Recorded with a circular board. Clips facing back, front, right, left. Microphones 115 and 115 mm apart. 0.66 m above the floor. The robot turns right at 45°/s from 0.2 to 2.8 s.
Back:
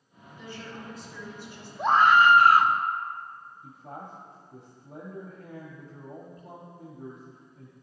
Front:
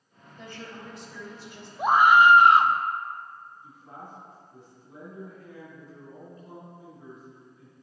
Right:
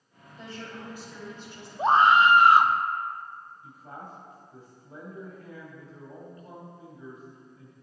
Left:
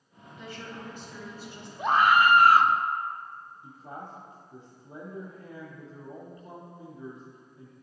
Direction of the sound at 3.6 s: 150° left.